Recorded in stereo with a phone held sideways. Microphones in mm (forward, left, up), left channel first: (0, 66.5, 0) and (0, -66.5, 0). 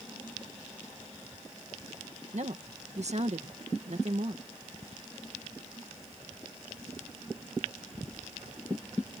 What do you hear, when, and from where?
2.3 s a woman speaking: 60° right (ahead or behind)